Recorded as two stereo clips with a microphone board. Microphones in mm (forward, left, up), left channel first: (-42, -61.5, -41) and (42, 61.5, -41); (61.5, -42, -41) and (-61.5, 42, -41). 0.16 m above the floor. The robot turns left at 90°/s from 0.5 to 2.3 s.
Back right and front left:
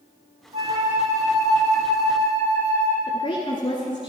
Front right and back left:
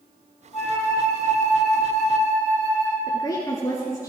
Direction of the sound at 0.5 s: 15° left.